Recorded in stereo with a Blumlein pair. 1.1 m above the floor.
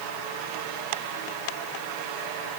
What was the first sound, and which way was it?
Only background noise.